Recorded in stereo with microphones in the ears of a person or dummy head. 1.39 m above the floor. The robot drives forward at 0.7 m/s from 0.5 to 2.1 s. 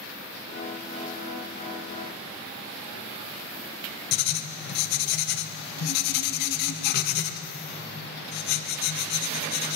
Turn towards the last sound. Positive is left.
turn(degrees=55)  # may be behind; listen again after turning